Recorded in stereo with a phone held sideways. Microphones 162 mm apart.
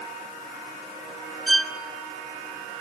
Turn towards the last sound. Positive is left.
turn(degrees=0)  # may be behind; listen again after turning